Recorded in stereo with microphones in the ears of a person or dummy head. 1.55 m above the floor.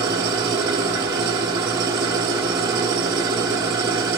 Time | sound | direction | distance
0.0 | an engine running | 10° right (ahead or behind) | 1.2 m